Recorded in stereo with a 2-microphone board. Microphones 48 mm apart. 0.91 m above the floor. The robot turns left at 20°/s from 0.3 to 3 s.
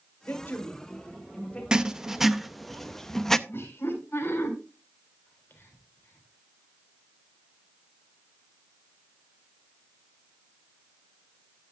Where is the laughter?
55° left (ahead or behind), 4 m.